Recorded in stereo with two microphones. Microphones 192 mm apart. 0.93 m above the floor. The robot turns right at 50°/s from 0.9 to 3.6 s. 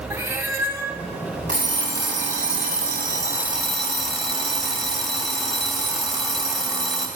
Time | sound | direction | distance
0.1 | a cat meowing | 15° right (ahead or behind) | 0.9 m
1.5 | an alarm clock | 105° right | 1.8 m